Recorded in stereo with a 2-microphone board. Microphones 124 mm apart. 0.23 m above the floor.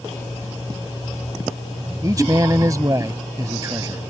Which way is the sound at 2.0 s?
30° right (ahead or behind).